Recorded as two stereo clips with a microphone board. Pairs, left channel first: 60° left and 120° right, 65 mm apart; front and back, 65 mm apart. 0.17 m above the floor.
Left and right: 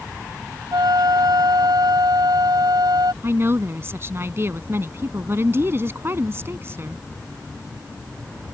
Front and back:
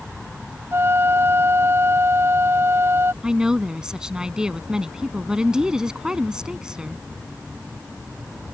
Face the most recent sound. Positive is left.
turn(degrees=-110)